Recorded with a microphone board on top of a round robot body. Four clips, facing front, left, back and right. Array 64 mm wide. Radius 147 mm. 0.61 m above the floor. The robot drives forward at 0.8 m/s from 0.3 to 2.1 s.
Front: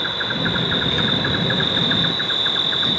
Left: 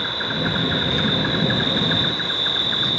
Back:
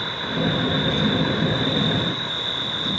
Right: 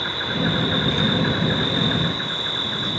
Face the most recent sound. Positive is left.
turn(degrees=20)